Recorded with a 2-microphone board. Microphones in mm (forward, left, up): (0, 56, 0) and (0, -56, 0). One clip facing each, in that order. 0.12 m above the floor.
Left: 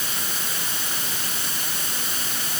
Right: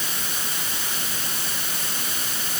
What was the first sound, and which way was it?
Only background noise.